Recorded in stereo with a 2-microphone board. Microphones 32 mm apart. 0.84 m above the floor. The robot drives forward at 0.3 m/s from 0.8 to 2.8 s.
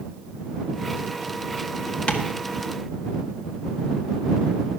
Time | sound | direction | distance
2.1 | tapping | 35° left (ahead or behind) | 1.4 m